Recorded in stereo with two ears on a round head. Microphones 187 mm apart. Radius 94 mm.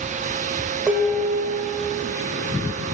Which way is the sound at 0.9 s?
5° right (ahead or behind).